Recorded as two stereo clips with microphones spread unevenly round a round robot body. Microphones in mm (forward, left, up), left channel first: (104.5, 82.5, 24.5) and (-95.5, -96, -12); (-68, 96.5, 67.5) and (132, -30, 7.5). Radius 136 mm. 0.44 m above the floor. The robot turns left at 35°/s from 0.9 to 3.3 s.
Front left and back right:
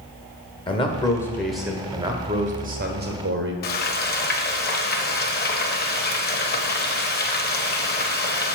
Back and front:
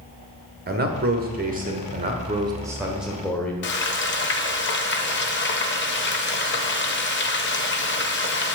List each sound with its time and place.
0.7 s a man speaking: 35° right, 1.4 m; by 3.5 s 115° right, 1.4 m
3.6 s frying: 100° left, 0.8 m